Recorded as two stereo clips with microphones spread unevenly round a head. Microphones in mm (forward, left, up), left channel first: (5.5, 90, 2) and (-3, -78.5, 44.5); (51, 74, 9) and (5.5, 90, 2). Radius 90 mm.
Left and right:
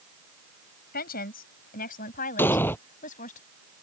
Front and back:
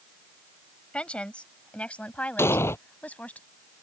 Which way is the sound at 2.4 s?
5° left.